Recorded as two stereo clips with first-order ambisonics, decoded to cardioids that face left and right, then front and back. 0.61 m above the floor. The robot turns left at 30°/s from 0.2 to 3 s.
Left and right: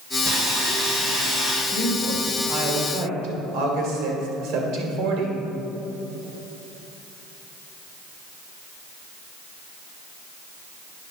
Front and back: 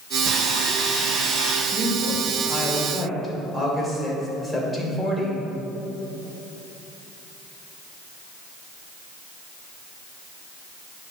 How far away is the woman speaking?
About 2 m.